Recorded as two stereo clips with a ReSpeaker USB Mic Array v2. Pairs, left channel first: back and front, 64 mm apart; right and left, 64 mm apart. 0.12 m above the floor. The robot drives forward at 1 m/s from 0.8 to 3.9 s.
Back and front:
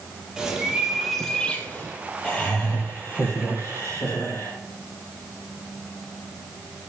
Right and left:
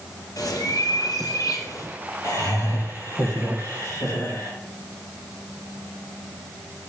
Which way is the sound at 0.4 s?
80° right.